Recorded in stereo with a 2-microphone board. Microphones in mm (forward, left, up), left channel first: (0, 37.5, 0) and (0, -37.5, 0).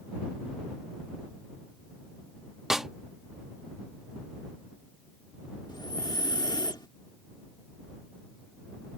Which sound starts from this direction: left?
Breathing, at 5.7 s.